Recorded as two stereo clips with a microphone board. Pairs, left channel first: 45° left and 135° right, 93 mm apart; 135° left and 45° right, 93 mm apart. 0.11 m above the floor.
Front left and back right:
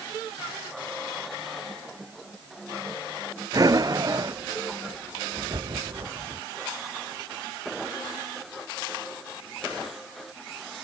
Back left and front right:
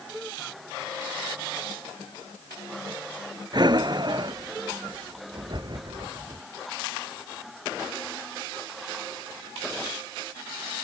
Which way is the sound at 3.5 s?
85° right.